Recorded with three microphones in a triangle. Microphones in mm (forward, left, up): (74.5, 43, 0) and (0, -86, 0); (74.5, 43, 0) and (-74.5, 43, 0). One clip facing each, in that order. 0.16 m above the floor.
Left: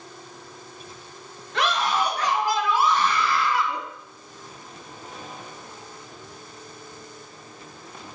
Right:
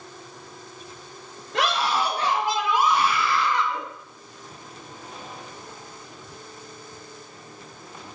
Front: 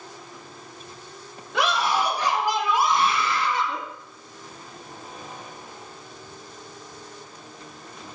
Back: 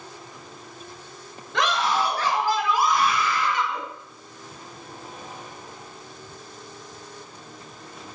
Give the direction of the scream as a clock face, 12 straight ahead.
3 o'clock.